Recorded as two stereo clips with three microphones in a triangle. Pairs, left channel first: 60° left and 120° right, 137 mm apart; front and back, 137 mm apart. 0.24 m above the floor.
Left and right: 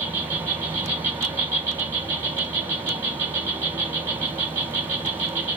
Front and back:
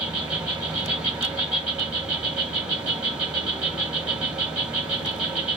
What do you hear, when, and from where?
0.0 s an insect: 110° right, 2 m